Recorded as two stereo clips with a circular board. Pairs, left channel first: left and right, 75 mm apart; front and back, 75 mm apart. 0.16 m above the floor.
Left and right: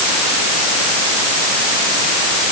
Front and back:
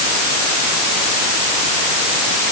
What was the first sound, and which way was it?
Only background noise.